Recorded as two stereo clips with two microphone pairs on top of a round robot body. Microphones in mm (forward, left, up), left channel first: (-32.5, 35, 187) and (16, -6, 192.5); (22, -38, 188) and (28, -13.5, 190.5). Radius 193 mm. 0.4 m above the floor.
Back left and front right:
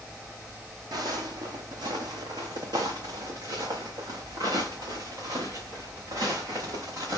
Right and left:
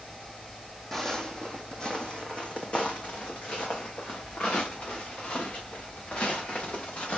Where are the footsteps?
25° right, 1.0 m; by 7.2 s 75° right, 4 m.